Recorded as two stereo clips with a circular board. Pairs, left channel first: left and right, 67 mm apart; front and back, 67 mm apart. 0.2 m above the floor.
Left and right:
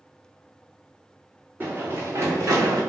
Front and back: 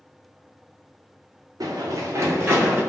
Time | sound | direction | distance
1.6 | running footsteps | 150° right | 1.2 m